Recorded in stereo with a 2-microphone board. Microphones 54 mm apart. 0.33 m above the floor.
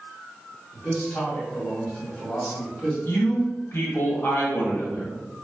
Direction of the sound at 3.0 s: 45° left (ahead or behind).